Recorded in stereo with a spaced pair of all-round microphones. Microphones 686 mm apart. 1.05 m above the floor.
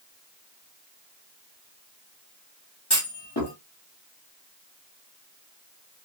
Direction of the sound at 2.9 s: 35° left (ahead or behind).